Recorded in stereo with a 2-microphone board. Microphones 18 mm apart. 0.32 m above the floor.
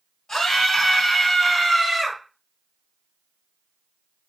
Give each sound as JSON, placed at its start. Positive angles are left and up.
{"t": 0.3, "sound": "a scream", "side_deg": 35, "distance_m": 1.7}